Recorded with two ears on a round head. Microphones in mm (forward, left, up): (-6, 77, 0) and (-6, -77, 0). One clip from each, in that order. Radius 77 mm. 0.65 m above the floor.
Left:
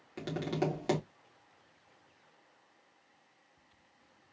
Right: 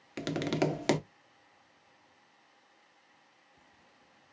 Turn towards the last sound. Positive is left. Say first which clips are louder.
# right 3 dB
turn(degrees=-55)  # may be behind; listen again after turning